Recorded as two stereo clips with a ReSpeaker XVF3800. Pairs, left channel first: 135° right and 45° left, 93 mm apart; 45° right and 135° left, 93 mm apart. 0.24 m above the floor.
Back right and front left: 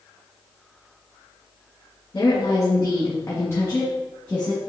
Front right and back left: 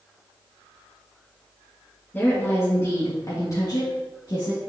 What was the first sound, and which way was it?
A woman speaking, 110° right.